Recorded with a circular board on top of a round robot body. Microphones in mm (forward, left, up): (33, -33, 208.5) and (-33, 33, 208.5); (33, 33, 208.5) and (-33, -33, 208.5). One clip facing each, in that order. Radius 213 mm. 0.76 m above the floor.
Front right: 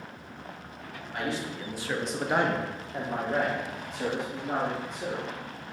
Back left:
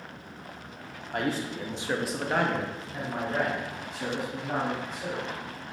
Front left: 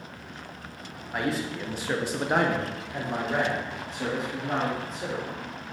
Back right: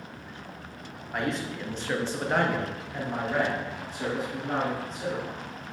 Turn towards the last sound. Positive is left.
turn(degrees=-35)